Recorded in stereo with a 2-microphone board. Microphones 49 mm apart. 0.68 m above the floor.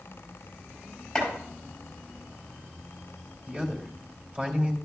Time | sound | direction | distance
1.1 | chopping | 10° left (ahead or behind) | 5.5 m
3.5 | a man speaking | 25° right (ahead or behind) | 2.5 m